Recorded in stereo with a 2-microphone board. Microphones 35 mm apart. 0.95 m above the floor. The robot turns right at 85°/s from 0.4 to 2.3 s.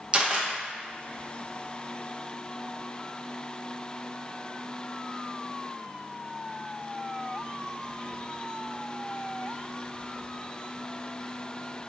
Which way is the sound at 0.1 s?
25° right (ahead or behind).